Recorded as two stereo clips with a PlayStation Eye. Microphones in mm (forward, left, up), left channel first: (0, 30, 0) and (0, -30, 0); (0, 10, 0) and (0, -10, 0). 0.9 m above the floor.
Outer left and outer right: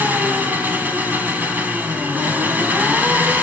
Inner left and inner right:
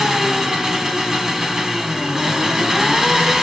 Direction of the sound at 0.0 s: 30° right (ahead or behind).